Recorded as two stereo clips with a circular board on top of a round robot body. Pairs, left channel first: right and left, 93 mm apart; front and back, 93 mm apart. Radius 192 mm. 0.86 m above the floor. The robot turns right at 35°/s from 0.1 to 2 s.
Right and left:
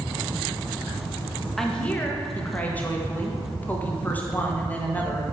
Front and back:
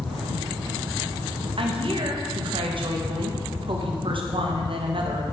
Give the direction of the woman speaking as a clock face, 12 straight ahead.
6 o'clock.